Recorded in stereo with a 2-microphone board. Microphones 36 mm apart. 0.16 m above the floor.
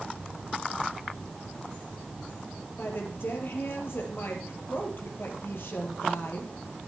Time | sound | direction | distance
2.8 | a woman speaking | 65° left (ahead or behind) | 4 m